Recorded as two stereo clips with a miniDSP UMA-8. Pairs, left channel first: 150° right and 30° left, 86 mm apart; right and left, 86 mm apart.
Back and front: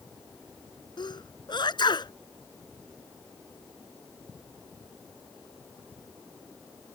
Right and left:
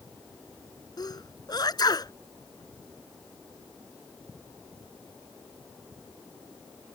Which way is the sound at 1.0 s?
130° right.